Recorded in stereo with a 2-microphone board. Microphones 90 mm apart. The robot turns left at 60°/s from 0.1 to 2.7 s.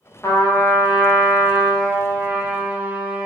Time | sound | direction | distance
0.2 | a trumpet | 25° left (ahead or behind) | 0.6 m